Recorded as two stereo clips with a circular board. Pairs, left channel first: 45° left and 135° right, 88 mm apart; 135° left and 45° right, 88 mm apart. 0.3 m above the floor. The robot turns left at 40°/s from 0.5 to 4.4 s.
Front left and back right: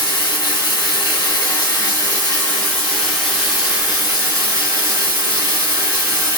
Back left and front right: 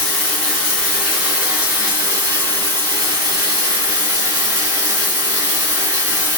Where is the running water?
65° left, 1.6 m; by 6.4 s 90° right, 1.6 m.